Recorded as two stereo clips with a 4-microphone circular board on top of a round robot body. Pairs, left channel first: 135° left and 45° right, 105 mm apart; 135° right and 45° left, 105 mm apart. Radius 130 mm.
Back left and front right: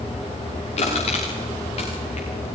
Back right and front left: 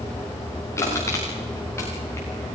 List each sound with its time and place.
0.8 s crushing: 160° left, 9.5 m